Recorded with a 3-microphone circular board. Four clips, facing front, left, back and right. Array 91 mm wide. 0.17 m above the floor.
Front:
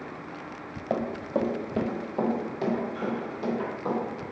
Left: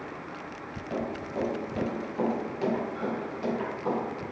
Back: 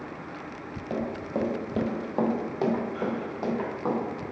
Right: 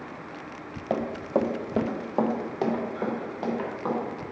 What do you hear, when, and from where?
0.9 s running footsteps: 50° right, 1.4 m; by 4.0 s 145° right, 4.5 m